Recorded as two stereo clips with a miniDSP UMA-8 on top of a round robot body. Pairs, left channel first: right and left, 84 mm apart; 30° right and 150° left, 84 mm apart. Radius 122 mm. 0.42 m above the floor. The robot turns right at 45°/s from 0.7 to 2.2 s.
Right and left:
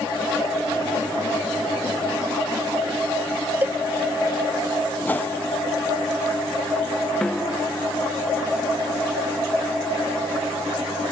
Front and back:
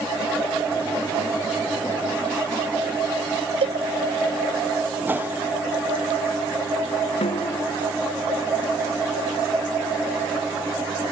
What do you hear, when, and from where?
3.6 s a cowbell: 160° left
5.0 s a whoosh: 150° right
7.2 s a snare drum: 10° right